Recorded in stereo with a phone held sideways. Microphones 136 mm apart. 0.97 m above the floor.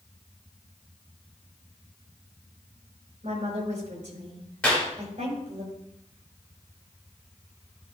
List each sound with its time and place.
3.2 s a woman speaking: 60° right (ahead or behind), 4.5 m
4.6 s a clap: 10° left (ahead or behind), 3 m